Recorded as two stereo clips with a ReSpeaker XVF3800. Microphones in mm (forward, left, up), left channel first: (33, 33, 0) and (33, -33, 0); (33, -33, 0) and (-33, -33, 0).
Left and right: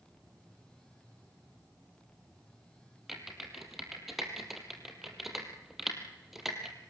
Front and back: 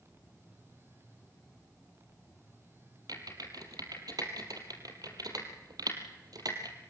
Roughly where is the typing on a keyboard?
Behind.